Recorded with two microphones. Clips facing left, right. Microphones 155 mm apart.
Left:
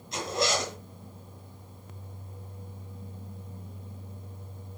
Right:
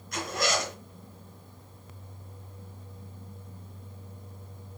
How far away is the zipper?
About 4 m.